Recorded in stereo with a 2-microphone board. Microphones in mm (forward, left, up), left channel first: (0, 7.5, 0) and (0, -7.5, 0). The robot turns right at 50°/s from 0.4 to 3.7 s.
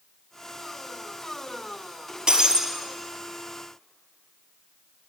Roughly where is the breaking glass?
Right.